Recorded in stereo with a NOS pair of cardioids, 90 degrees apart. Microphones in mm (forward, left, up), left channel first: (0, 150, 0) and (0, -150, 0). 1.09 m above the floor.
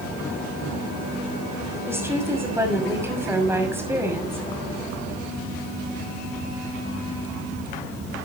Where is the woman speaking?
10° right, 6 m.